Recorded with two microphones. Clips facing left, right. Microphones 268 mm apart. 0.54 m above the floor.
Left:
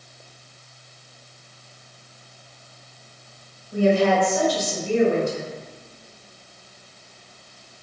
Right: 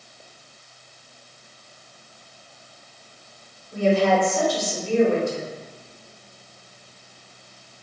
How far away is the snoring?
No snoring in this recording.